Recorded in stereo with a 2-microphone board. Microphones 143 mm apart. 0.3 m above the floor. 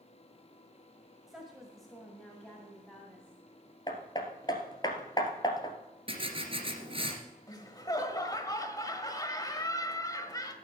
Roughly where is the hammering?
Left.